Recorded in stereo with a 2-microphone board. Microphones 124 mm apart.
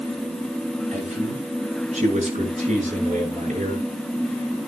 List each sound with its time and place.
0.9 s a man speaking: 75° right (ahead or behind), 5.5 m; by 3.9 s 70° right (ahead or behind), 7.5 m